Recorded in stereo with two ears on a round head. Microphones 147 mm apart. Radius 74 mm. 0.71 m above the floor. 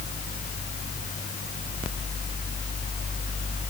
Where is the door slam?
I don't hear a door slam.